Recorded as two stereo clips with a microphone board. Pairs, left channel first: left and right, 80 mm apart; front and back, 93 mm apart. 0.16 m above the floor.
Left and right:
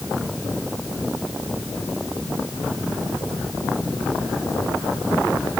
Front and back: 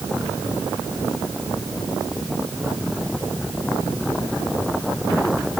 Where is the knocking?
No knocking in this recording.